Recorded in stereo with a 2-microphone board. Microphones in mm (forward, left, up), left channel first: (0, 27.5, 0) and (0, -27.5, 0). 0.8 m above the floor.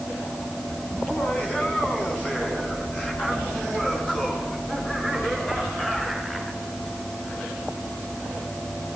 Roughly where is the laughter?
Left.